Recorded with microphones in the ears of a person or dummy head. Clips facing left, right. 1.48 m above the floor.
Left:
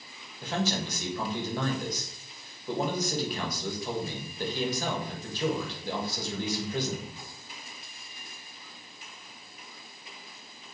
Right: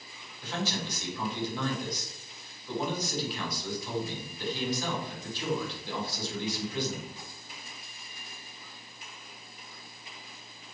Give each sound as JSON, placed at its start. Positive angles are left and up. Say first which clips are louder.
{"t": 0.4, "sound": "a man speaking", "louder": "left 4 dB", "side_deg": 50, "distance_m": 2.5}